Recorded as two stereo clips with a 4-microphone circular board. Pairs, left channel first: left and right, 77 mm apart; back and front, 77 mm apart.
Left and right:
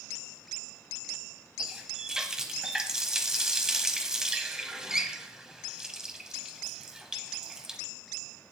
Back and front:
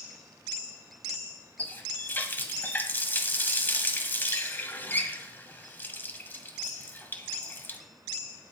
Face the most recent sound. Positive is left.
turn(degrees=-160)